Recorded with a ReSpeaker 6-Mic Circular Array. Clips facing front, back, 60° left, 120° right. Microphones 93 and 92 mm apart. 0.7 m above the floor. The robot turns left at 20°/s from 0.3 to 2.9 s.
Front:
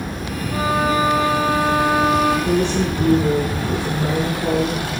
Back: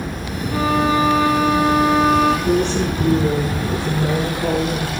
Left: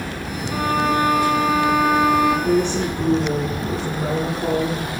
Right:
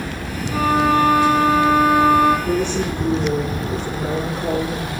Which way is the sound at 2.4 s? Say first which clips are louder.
Back 1 dB, left 1 dB; 115° left.